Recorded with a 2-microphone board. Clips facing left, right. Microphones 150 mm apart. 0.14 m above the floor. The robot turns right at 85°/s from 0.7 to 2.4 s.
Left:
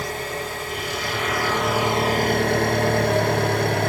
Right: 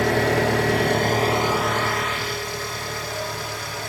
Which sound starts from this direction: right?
An engine running, at 0.0 s.